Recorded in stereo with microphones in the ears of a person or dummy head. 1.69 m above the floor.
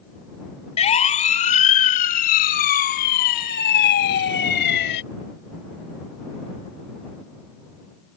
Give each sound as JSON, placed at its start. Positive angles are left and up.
{"t": 0.8, "sound": "a siren", "side_deg": 30}